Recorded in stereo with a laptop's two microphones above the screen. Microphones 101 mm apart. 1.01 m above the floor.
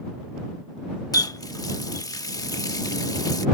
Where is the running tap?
35° left (ahead or behind).